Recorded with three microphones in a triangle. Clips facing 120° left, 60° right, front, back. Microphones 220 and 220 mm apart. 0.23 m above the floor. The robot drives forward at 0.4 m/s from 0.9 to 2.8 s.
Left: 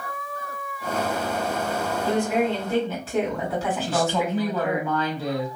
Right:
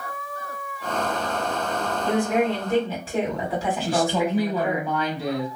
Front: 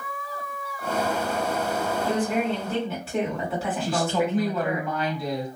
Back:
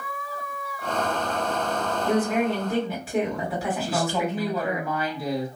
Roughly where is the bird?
No bird in this recording.